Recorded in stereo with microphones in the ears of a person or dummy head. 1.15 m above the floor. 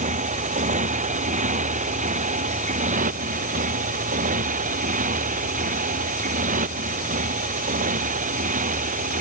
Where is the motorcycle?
40° right (ahead or behind).